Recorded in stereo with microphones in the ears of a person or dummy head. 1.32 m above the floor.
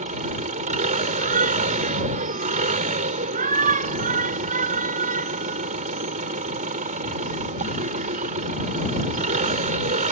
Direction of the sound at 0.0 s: 45° right (ahead or behind).